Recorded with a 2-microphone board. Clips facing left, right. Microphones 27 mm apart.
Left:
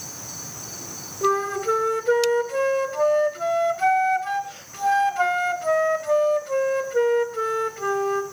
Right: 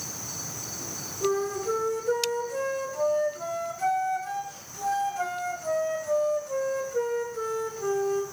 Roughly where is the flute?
Left.